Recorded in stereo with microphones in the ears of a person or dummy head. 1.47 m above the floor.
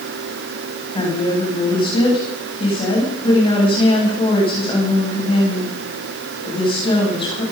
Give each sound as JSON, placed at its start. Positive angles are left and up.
{"t": 0.9, "sound": "a woman speaking", "side_deg": 30, "distance_m": 10.0}